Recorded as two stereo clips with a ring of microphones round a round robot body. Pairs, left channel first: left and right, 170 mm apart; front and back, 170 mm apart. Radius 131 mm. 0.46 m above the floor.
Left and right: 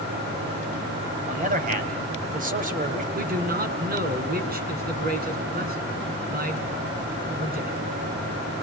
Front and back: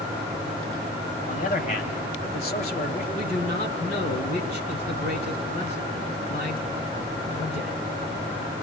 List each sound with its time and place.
1.3 s a man speaking: 55° right, 3.5 m
3.1 s a man speaking: 60° right, 5.5 m